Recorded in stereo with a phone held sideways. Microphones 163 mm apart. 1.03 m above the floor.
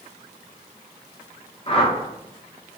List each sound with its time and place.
1.7 s a whoosh: 35° left (ahead or behind), 0.8 m